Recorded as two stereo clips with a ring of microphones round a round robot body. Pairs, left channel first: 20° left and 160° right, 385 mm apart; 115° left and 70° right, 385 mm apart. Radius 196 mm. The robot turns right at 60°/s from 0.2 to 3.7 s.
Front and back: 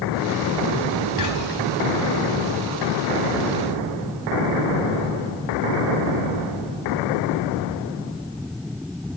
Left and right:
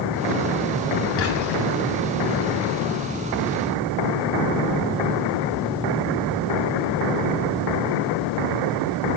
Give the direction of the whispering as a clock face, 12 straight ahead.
10 o'clock.